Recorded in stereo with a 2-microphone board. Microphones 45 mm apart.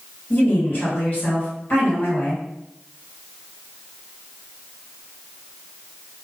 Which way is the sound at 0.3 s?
50° left (ahead or behind).